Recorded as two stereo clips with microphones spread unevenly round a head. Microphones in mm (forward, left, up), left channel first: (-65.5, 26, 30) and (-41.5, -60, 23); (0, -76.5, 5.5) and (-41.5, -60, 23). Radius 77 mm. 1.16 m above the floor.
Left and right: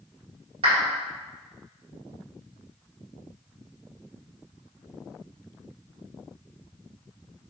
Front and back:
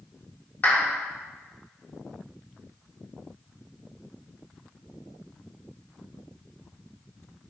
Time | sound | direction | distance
0.6 | a clap | 75° right | 1.4 m